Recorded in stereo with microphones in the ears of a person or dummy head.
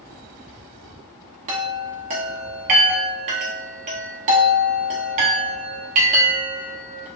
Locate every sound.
1.5 s a chime: 35° right (ahead or behind), 0.6 m